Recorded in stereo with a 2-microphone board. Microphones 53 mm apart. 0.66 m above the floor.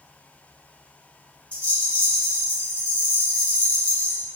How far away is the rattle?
About 0.9 m.